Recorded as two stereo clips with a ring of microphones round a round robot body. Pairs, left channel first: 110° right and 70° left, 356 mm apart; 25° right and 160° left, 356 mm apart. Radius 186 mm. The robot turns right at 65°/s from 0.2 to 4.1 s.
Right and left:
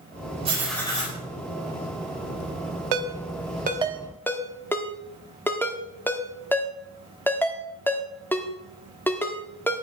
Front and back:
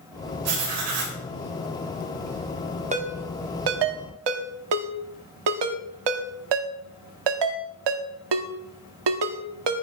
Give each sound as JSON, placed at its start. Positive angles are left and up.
{"t": 0.5, "sound": "writing", "azimuth_deg": 140, "distance_m": 4.5}
{"t": 2.9, "sound": "a ringtone", "azimuth_deg": 85, "distance_m": 1.6}